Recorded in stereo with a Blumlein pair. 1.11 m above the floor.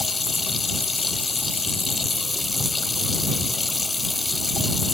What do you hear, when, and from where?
0.0 s running water: 10° left